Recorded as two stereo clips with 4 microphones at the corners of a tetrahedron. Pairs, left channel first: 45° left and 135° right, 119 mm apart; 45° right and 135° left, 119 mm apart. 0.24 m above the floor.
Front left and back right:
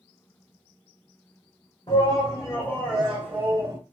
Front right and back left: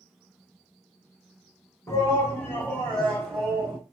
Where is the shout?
10° left, 2 m; by 3.8 s 165° right, 1.7 m.